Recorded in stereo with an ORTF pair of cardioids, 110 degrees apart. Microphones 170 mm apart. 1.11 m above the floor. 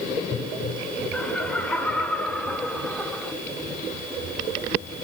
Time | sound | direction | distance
1.1 | laughter | 5° left | 5 m